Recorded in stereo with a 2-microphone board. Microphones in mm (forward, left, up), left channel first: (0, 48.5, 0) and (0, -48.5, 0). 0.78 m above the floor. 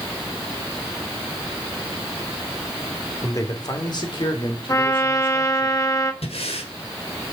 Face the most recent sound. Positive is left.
turn(degrees=75)  # may be behind; listen again after turning